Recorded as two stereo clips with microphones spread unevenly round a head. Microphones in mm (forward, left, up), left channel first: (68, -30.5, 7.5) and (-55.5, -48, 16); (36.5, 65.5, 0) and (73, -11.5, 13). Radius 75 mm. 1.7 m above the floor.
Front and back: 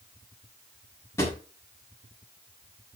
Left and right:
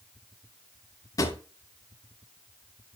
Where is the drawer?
75° left, 1.5 m.